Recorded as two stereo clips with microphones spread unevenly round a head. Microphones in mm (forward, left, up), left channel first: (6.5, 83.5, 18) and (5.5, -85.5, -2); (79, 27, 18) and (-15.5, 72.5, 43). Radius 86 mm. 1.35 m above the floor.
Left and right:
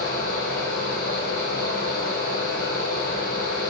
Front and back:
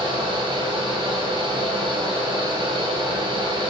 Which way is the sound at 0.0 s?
110° left.